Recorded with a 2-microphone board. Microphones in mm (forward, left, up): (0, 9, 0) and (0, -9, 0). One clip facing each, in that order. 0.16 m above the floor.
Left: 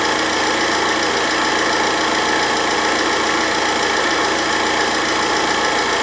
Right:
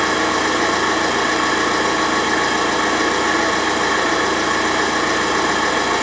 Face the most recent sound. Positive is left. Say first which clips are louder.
# even
turn(degrees=55)  # may be behind; listen again after turning